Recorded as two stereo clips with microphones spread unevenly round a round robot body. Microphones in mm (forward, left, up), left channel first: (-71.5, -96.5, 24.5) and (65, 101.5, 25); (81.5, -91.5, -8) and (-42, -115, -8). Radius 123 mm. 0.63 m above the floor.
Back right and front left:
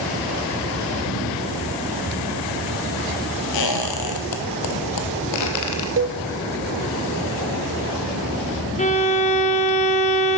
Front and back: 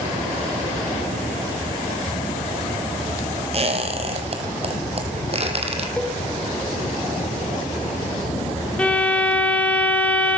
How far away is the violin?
About 1.9 m.